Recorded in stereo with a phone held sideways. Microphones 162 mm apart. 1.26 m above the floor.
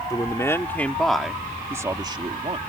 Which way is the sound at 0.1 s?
20° left (ahead or behind).